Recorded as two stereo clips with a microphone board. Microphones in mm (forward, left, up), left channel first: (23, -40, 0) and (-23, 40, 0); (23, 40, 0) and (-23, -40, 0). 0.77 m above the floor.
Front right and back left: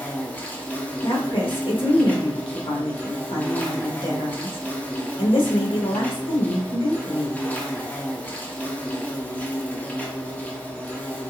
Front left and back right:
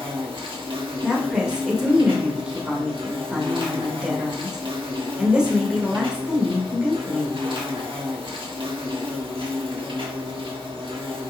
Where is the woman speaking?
40° right, 2 m.